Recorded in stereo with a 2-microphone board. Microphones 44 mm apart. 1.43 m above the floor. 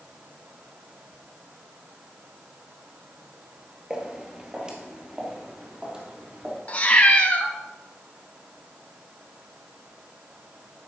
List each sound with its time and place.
3.9 s footsteps: 20° right (ahead or behind), 1.8 m
6.7 s a cat meowing: 30° left (ahead or behind), 1.0 m